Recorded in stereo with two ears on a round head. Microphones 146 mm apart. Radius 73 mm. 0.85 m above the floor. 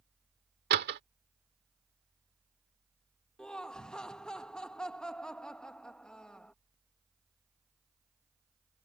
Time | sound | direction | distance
0.7 | a door slam | 70° right (ahead or behind) | ?
3.4 | laughter | 5° left (ahead or behind) | ?